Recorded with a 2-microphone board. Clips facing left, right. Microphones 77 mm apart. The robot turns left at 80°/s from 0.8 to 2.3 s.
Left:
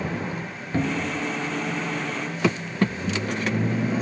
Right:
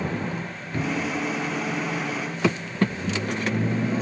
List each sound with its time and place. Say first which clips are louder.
0.7 s a cupboard door: left 1 dB; 25° left (ahead or behind), 1.4 m; by 1.3 s 60° left (ahead or behind), 1.4 m